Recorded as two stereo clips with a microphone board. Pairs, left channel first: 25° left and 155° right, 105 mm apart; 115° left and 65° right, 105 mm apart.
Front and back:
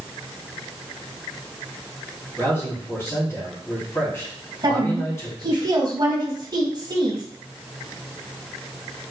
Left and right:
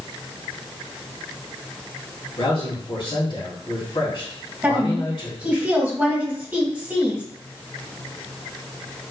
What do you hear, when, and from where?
2.4 s a man speaking: 85° left, 2.5 m
4.6 s a woman speaking: 135° right, 1.7 m